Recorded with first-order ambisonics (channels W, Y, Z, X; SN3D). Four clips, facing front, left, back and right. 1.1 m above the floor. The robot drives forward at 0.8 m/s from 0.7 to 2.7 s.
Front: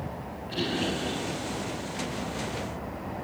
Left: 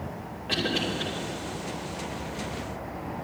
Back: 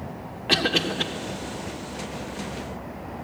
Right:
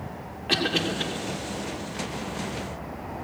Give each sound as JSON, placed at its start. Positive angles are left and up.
{"t": 0.5, "sound": "a cough", "azimuth_deg": -160, "distance_m": 2.5}